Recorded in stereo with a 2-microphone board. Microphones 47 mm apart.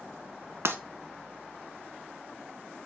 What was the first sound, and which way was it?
Breaking glass, 60° right (ahead or behind).